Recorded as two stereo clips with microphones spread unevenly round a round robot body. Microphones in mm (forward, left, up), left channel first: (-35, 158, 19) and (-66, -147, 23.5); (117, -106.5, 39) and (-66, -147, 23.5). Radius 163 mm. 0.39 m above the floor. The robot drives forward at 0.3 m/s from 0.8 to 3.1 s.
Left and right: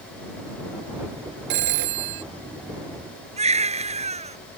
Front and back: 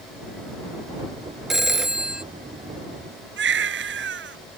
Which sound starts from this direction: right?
A phone ringing, at 1.5 s.